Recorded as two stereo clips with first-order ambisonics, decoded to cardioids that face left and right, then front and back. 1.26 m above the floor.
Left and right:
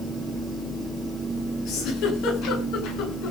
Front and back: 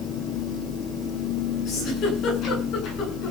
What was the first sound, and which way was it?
A giggle, 50° left.